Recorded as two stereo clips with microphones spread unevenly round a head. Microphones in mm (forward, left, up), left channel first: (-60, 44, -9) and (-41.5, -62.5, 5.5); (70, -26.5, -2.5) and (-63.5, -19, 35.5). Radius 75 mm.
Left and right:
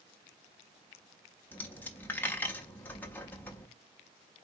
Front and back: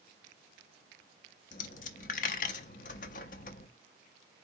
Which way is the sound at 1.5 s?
20° left.